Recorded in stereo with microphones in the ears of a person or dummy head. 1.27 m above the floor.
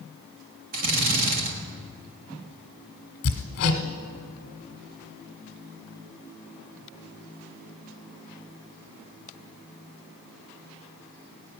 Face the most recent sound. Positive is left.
turn(degrees=50)  # may be behind; listen again after turning